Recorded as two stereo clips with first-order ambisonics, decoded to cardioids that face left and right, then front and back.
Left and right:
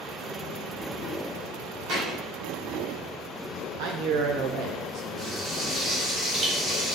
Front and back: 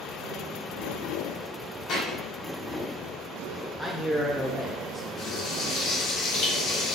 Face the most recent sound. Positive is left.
turn(degrees=-30)